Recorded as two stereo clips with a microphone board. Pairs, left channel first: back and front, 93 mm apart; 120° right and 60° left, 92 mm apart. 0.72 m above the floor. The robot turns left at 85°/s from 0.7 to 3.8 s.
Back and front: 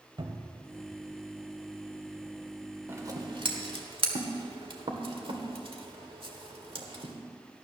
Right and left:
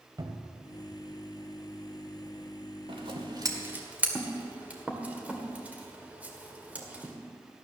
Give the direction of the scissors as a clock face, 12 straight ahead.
10 o'clock.